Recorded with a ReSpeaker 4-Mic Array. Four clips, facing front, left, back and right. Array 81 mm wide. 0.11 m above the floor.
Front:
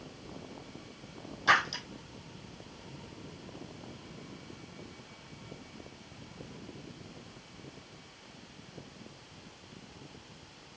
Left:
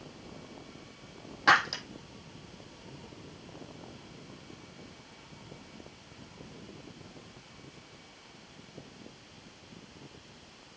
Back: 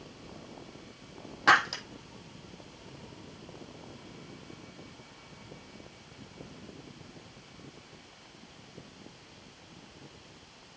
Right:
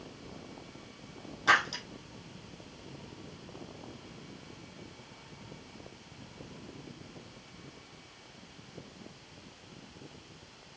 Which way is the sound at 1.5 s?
145° left.